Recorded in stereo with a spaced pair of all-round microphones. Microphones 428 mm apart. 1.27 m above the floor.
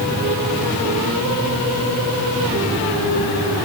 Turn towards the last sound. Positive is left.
No sound to turn to.